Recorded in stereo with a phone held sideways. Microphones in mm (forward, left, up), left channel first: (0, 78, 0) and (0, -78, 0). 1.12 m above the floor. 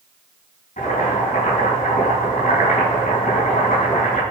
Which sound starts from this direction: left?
Boiling, at 0.8 s.